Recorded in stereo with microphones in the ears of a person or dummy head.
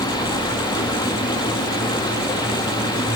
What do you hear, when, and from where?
0.0 s running water: 25° left (ahead or behind), 1.7 m